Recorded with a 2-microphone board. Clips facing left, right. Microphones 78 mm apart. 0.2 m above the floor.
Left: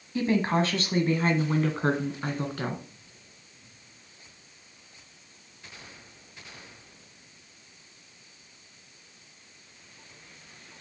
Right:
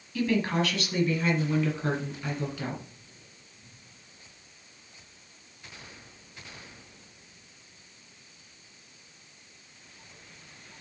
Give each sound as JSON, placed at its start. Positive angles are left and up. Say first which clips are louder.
{"t": 0.1, "sound": "a woman speaking", "louder": "left 2 dB", "side_deg": 25, "distance_m": 1.3}